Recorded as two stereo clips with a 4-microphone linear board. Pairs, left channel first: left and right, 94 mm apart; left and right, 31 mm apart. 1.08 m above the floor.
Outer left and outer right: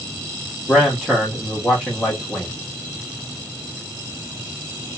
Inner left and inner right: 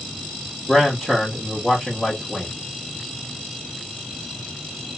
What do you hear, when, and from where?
0.7 s a man speaking: 10° right (ahead or behind), 0.9 m